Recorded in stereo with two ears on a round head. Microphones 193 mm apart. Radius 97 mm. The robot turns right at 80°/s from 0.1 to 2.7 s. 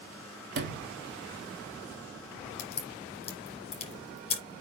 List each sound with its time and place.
0.6 s a sliding door: 65° right, 2 m; by 0.9 s 30° right, 2 m
2.6 s a crack: 40° left (ahead or behind), 5.5 m; by 4.4 s 30° left (ahead or behind), 5.5 m